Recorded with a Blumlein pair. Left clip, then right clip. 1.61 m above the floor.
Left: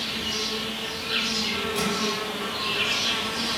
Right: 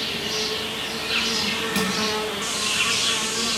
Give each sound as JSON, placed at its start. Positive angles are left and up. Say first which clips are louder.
{"t": 0.0, "sound": "an insect", "louder": "right 2 dB", "azimuth_deg": -15, "distance_m": 0.8}
{"t": 1.8, "sound": "crushing", "louder": "right 2 dB", "azimuth_deg": -35, "distance_m": 2.5}